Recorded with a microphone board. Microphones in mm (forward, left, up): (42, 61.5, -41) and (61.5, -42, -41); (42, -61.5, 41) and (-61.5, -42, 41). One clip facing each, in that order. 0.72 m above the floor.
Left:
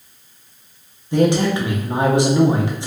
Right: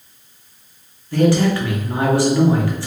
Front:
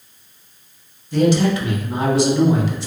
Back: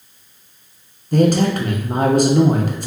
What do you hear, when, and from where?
1.1 s a man speaking: 160° left, 0.8 m